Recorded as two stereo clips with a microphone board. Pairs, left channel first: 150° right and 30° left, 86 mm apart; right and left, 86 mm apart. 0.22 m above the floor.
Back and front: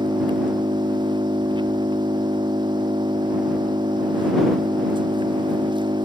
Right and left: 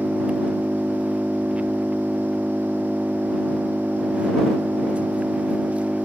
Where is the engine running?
15° left.